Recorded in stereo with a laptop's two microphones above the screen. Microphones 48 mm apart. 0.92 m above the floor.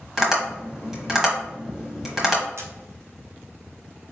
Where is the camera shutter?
70° right (ahead or behind), 0.7 m.